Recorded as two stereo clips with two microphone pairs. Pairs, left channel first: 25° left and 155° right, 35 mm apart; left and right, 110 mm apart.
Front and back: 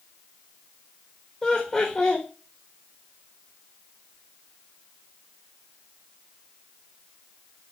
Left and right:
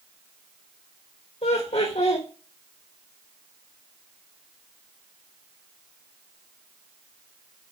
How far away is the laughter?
About 1.7 m.